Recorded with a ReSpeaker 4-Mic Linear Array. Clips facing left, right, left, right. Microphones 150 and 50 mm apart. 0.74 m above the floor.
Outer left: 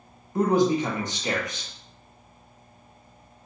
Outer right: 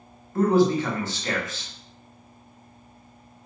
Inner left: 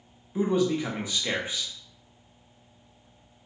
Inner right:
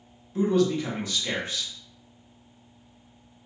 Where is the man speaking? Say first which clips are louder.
Outer right 1 dB, inner right 2 dB; 15° left (ahead or behind), 0.5 m.